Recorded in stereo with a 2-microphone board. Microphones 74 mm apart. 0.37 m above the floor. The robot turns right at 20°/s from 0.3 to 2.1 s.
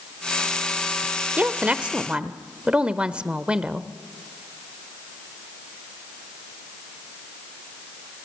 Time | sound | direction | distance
1.4 | a woman speaking | 20° right (ahead or behind) | 0.9 m